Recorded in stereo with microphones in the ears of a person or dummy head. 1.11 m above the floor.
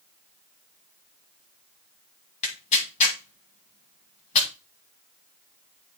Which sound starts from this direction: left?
Tearing paper, at 2.4 s.